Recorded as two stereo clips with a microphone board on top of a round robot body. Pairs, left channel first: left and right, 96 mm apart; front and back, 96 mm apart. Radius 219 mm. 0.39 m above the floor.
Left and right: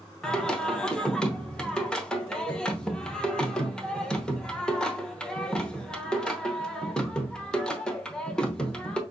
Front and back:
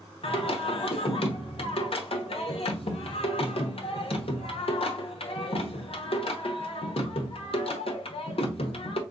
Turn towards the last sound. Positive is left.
turn(degrees=10)